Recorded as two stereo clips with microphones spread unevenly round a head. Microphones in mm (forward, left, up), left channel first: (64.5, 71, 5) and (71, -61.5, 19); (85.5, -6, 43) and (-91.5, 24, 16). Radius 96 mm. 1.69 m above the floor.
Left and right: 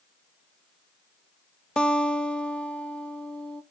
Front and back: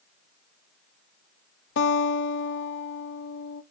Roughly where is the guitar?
Ahead.